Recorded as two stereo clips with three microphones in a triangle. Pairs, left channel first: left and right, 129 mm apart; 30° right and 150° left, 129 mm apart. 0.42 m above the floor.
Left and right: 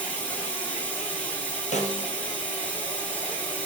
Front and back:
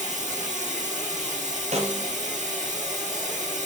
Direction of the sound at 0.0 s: 170° left.